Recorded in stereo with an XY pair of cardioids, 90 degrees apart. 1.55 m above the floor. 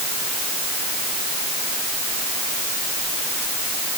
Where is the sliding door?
I don't hear a sliding door.